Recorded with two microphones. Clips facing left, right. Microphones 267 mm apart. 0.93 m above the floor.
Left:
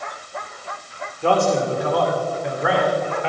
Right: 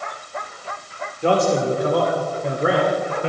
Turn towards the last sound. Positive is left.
turn(degrees=-45)  # may be behind; listen again after turning